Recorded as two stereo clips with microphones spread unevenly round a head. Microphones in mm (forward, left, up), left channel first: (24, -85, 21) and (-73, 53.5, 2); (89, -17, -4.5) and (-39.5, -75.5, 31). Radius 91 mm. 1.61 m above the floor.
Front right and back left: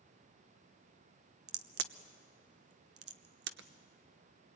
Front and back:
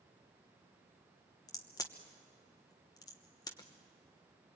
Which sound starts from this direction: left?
A crack, at 1.5 s.